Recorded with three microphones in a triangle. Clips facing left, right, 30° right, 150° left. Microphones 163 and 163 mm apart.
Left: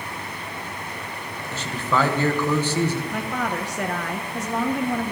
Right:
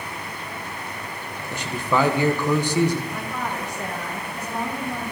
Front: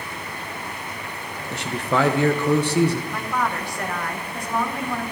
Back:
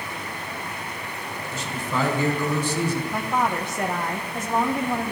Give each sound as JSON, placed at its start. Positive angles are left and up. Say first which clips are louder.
{"t": 1.5, "sound": "a man speaking", "louder": "right 1 dB, front 6 dB", "azimuth_deg": -15, "distance_m": 1.1}
{"t": 3.1, "sound": "a woman speaking", "louder": "left 3 dB, back 1 dB", "azimuth_deg": 85, "distance_m": 1.0}